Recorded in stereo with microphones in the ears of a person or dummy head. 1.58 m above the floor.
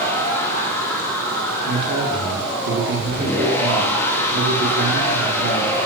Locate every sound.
0.0 s a machine running: 15° left (ahead or behind), 2.5 m
1.6 s a man speaking: 60° right (ahead or behind), 4 m